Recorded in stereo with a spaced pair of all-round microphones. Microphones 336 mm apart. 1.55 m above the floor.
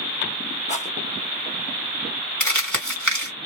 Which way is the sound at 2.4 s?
55° right (ahead or behind).